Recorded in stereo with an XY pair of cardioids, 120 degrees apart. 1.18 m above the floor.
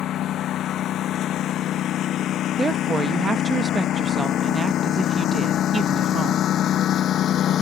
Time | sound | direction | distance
0.0 | a lawn mower | 55° left | ?
2.6 | a woman speaking | 30° right | ?